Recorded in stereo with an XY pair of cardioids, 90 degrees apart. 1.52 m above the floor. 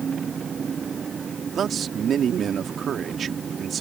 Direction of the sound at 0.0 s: 45° right.